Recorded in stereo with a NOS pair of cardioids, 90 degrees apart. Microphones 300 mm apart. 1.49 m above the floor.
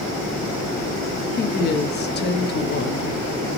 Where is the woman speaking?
35° left, 0.6 m.